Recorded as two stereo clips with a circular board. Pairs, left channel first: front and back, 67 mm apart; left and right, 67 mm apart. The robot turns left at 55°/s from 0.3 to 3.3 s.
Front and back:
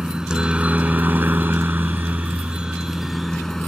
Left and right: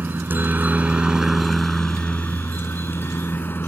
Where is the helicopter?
110° right; by 3.7 s 85° left.